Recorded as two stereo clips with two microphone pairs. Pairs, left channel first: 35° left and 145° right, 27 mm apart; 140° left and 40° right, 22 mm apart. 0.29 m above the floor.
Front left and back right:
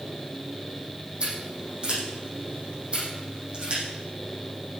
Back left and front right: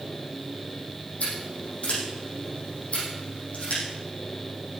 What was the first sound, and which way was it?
Scissors, 160° left.